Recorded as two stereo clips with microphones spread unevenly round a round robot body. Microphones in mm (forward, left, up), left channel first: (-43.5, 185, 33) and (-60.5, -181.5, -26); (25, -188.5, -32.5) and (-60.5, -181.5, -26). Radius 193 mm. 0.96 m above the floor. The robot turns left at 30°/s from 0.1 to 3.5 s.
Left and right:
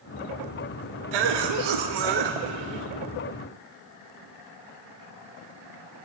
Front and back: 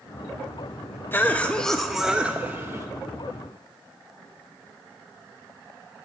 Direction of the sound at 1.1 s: 70° right.